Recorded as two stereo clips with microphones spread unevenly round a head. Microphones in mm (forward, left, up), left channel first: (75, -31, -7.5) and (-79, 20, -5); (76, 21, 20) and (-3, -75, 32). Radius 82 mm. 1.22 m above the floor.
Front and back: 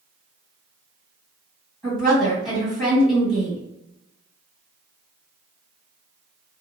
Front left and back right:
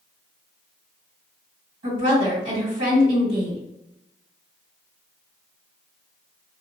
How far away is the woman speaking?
About 1.7 m.